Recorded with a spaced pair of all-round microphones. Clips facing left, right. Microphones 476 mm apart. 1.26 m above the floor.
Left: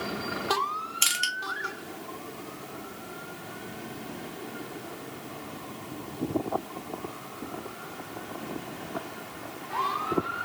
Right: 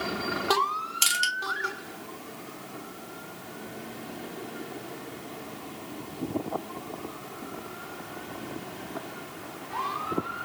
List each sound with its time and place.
1.0 s crushing: 60° right (ahead or behind), 0.8 m